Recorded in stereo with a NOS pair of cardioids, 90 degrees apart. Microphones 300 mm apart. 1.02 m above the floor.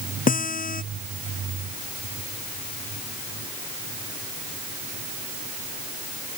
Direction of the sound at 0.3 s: 25° left.